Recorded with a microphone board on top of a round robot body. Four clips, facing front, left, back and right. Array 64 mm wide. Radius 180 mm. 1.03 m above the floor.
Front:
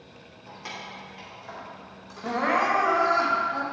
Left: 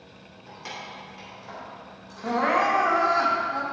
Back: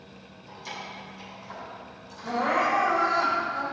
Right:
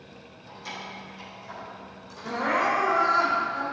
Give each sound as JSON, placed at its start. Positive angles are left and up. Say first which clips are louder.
{"t": 0.5, "sound": "keys jangling", "louder": "even, even", "azimuth_deg": 35, "distance_m": 3.0}
{"t": 2.2, "sound": "crying", "louder": "left 3 dB, front 1 dB", "azimuth_deg": 50, "distance_m": 1.8}